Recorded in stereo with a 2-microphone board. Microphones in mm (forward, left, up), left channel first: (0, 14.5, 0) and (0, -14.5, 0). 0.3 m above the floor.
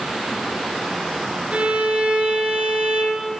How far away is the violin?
About 1.0 m.